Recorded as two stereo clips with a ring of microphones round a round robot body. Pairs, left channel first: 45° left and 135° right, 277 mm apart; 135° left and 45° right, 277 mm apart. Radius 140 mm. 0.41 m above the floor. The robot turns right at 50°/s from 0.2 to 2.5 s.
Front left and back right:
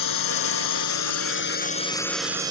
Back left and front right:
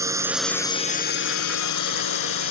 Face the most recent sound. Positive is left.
turn(degrees=150)